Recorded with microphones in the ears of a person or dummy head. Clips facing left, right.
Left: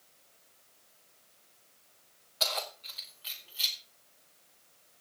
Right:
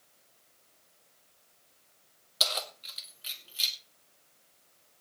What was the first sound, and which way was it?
Keys jangling, 40° right (ahead or behind).